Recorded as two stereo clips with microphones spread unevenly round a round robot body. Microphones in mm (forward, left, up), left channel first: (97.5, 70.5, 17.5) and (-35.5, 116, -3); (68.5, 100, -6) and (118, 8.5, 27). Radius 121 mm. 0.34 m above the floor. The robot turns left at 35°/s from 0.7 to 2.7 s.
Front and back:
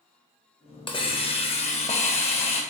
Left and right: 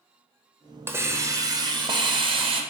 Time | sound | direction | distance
0.9 | a hiss | 20° left | 1.1 m